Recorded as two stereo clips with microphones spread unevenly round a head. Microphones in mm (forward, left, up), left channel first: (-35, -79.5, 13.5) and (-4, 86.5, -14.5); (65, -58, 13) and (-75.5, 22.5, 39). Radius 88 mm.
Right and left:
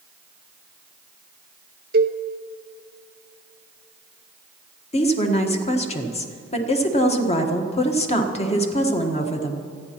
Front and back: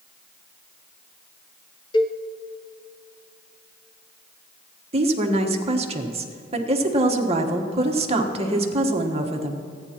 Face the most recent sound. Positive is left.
turn(degrees=-155)